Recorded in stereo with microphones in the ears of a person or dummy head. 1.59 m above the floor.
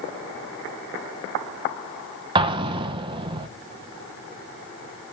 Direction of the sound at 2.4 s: 30° right (ahead or behind).